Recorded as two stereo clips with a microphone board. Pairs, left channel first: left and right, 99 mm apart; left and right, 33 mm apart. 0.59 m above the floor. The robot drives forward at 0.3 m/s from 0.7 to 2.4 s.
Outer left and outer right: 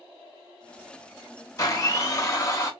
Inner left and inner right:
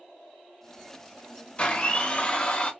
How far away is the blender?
About 0.7 m.